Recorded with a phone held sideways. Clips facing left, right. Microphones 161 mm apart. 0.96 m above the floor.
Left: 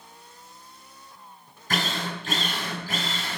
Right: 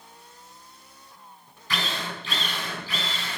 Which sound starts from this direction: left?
A drill, at 1.7 s.